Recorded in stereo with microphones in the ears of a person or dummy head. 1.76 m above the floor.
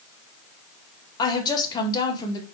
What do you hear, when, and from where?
1.2 s a woman speaking: 25° left (ahead or behind), 0.8 m